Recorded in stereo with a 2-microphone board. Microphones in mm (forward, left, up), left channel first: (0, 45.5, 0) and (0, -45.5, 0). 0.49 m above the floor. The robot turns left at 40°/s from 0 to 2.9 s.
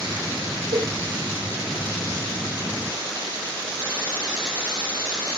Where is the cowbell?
80° right, 1.3 m; by 0.9 s 85° right, 1.3 m.